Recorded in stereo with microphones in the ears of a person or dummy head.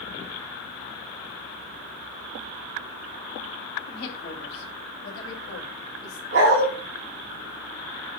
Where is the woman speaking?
55° left (ahead or behind), 2.5 m; by 6.2 s 80° left, 1.8 m.